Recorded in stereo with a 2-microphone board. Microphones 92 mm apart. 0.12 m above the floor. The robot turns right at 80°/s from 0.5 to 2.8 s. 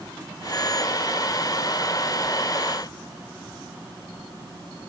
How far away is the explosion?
I don't hear an explosion.